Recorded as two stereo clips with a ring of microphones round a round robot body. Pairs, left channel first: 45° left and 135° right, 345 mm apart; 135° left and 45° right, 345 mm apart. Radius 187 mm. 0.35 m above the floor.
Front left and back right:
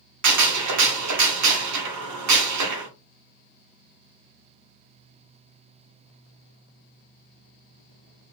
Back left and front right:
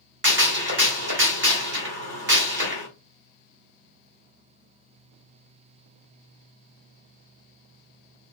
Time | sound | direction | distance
0.2 | a gunshot | 100° right | 1.4 m